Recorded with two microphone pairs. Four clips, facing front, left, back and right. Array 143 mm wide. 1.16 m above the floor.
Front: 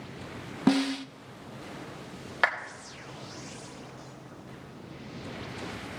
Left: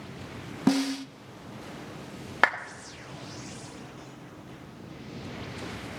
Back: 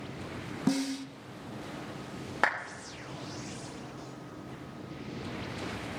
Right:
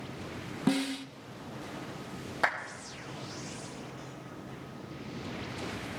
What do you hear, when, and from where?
0.7 s a snare drum: 35° left, 0.5 m
2.4 s a clap: 90° left, 2.5 m